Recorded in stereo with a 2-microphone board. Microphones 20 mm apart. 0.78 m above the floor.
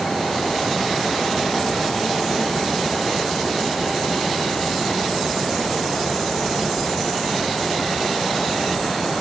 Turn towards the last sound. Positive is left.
No sound to turn to.